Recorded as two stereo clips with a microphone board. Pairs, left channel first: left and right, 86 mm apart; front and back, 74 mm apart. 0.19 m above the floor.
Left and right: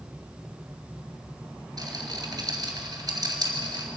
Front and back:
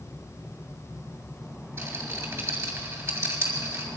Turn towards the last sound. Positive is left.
turn(degrees=-125)